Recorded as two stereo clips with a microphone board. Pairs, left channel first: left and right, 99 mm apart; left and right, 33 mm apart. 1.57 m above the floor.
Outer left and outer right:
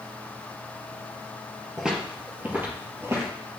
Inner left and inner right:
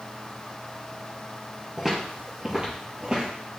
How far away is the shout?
No shout in this recording.